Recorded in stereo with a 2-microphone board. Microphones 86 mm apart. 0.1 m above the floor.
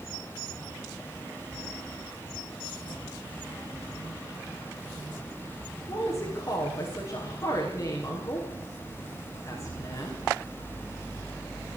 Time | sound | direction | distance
5.9 | a woman speaking | 30° left (ahead or behind) | 6.5 m